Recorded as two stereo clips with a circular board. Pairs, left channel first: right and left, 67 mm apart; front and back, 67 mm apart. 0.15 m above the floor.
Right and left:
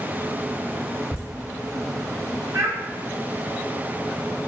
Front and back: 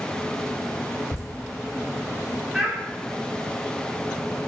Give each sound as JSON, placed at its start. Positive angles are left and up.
{"t": 1.1, "sound": "laughter", "azimuth_deg": 20, "distance_m": 1.8}
{"t": 2.5, "sound": "a child speaking", "azimuth_deg": 100, "distance_m": 0.9}